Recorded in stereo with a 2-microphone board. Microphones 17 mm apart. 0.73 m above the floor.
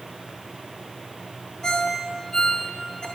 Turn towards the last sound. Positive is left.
turn(degrees=55)  # may be behind; listen again after turning